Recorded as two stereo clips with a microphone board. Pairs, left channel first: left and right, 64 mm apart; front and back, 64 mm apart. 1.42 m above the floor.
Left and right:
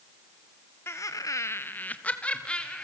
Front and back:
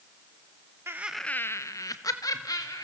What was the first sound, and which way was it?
Laughter, 135° left.